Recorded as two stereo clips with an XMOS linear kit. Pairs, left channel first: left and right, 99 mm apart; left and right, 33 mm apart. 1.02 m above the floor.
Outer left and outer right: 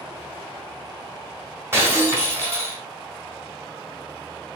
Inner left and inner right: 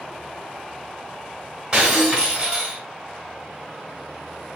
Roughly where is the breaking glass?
Right.